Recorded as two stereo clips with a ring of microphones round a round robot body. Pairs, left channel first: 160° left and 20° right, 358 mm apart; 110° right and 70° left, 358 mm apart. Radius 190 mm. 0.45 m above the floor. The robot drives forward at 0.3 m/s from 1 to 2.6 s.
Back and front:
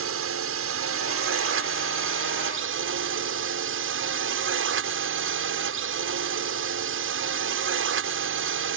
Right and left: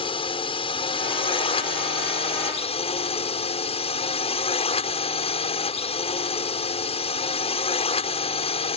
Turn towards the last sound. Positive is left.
turn(degrees=-50)